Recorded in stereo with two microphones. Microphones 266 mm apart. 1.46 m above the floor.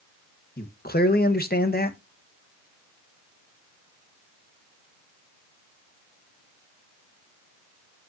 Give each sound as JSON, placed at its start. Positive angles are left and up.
{"t": 0.6, "sound": "a man speaking", "side_deg": 35, "distance_m": 1.6}